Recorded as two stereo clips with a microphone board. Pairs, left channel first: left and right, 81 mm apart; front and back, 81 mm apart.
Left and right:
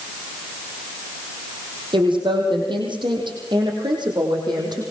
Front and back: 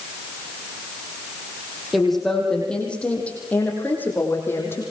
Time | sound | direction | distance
1.9 | a woman speaking | 90° right | 5.5 m